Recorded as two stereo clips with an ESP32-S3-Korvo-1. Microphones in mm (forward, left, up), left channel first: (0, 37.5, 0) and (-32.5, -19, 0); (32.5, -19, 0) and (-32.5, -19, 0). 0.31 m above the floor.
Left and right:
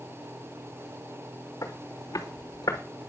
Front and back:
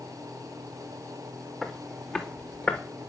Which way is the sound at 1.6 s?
85° left.